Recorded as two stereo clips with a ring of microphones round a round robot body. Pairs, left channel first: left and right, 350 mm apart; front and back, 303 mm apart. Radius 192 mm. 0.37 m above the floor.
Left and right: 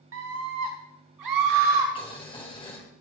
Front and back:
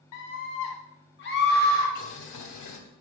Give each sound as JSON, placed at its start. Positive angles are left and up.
{"t": 0.1, "sound": "a scream", "azimuth_deg": -40, "distance_m": 3.0}
{"t": 1.9, "sound": "boiling", "azimuth_deg": 15, "distance_m": 2.5}